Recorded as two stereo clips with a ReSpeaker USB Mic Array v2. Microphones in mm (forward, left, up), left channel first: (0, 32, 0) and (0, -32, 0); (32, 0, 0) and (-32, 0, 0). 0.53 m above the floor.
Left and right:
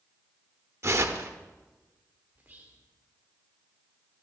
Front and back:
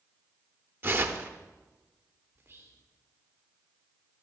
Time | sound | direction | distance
0.8 | tearing paper | 130° right | 0.6 m
2.4 | whispering | 145° right | 1.1 m